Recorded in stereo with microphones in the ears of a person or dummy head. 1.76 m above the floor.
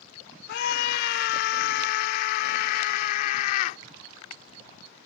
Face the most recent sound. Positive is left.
turn(degrees=55)  # may be behind; listen again after turning